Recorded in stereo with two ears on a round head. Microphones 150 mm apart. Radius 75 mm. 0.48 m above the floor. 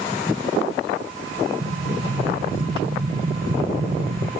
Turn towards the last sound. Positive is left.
turn(degrees=-50)  # may be behind; listen again after turning